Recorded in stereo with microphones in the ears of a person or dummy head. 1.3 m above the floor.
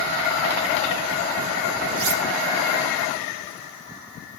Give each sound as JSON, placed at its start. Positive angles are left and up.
{"t": 2.0, "sound": "cutlery clinking", "side_deg": -75, "distance_m": 2.5}